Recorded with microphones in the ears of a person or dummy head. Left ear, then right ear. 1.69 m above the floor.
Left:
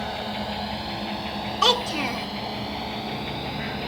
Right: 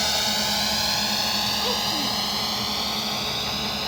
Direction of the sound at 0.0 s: 75° right (ahead or behind).